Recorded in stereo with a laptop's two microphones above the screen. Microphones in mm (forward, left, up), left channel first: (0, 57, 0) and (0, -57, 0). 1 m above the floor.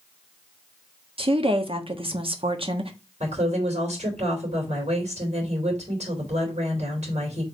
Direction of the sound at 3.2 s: 85° right.